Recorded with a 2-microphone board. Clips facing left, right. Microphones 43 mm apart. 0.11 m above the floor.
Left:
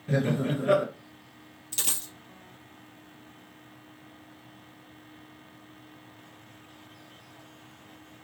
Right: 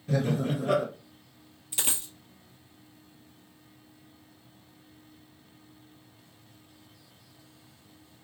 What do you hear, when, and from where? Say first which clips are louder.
0.1 s laughter: left 1 dB; 40° left (ahead or behind), 1.9 m
1.7 s a dropped coin: right 1 dB; 15° right (ahead or behind), 1.2 m